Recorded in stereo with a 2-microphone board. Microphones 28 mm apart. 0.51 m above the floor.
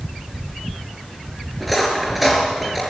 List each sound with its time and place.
1.6 s cutlery clinking: 5° right (ahead or behind), 4.5 m